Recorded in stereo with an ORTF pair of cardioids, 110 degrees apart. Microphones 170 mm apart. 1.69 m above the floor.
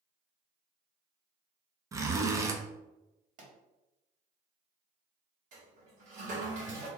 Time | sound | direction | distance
1.9 | a zipper | 20° right | 0.6 m
3.4 | a pop | 45° right | 1.6 m
5.5 | a toilet flushing | 50° right | 1.5 m